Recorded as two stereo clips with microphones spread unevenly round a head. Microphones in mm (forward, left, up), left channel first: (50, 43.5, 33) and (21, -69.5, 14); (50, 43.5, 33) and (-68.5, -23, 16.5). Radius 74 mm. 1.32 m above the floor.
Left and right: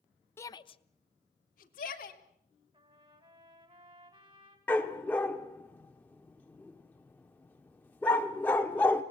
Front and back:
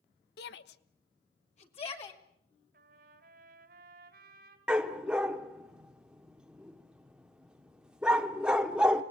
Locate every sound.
0.4 s a shout: 5° left, 1.0 m; by 2.2 s 80° left, 2.5 m
2.7 s a trumpet: 170° right, 2.5 m
4.7 s a dog barking: 120° left, 1.0 m